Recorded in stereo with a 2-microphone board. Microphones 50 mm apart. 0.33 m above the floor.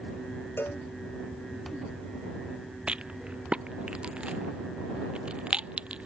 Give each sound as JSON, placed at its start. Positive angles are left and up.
{"t": 0.6, "sound": "a cowbell", "side_deg": 50}
{"t": 2.9, "sound": "a rattle", "side_deg": -20}